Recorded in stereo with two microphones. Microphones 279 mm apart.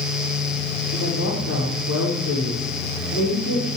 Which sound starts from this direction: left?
A woman speaking, at 0.9 s.